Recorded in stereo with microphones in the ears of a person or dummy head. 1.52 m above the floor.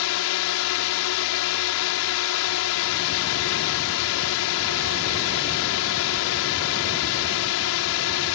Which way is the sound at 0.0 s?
80° left.